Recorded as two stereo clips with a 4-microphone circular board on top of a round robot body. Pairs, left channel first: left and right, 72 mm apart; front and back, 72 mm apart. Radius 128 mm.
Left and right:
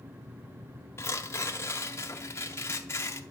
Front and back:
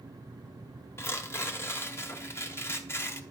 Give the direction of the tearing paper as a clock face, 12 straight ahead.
11 o'clock.